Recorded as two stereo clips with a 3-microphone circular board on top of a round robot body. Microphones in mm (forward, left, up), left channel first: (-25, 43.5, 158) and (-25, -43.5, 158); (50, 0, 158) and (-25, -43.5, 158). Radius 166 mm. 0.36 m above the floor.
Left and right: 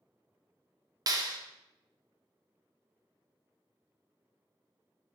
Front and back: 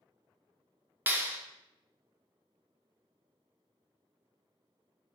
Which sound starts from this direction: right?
A clap, at 1.1 s.